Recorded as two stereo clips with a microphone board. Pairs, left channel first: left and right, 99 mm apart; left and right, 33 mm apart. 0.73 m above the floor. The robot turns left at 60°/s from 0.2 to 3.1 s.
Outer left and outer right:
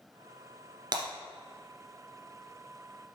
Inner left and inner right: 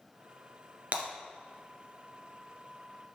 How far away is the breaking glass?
About 1.9 m.